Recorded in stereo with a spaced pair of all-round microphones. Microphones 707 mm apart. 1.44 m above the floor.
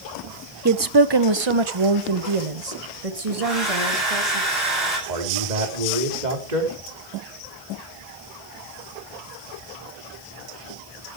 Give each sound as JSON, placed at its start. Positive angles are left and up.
{"t": 0.7, "sound": "a woman speaking", "side_deg": -25, "distance_m": 0.8}
{"t": 3.4, "sound": "a hair dryer", "side_deg": 0, "distance_m": 9.5}
{"t": 5.1, "sound": "a man speaking", "side_deg": -80, "distance_m": 3.5}